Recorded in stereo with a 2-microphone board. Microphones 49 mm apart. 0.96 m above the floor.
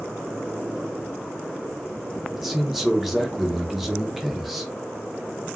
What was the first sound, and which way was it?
A man speaking, 5° right (ahead or behind).